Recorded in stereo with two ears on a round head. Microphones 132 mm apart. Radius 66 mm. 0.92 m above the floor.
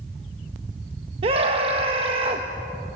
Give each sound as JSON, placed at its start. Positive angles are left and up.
{"t": 1.2, "sound": "a scream", "side_deg": -40, "distance_m": 1.0}